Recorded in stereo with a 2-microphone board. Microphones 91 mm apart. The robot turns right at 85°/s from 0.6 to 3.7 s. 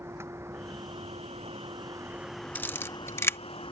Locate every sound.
0.0 s a vehicle: 30° right (ahead or behind); by 3.7 s 65° left (ahead or behind)
2.5 s a camera shutter: 20° left (ahead or behind); by 3.4 s 25° left (ahead or behind)